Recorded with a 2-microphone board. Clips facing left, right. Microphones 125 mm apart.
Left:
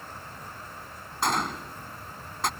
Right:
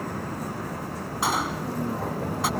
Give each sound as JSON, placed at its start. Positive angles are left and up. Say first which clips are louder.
{"t": 0.0, "sound": "a vehicle", "louder": "right 11 dB", "side_deg": -85}
{"t": 1.2, "sound": "a gunshot", "louder": "right 1 dB", "side_deg": -5}